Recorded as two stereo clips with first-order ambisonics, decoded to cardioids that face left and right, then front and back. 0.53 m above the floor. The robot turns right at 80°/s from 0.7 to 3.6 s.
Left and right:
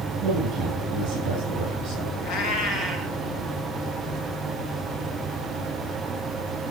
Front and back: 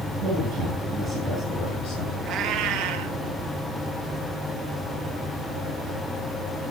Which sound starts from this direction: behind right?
A man speaking, at 0.2 s.